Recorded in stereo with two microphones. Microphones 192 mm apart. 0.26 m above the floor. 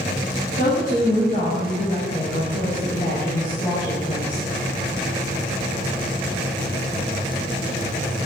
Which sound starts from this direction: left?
A woman speaking, at 0.6 s.